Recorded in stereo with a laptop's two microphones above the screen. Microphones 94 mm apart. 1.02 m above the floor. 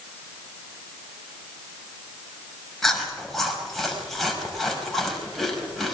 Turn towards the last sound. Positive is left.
turn(degrees=0)  # may be behind; listen again after turning